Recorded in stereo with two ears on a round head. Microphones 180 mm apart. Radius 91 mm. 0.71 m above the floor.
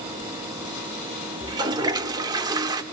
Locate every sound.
1.4 s a toilet flushing: 20° right (ahead or behind), 1.5 m